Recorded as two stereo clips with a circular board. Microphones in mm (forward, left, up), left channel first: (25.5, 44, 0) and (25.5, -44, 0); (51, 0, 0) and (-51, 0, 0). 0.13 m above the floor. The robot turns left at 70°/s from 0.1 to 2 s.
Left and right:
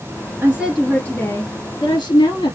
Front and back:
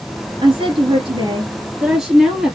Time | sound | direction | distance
0.4 | a woman speaking | 155° right | 2.5 m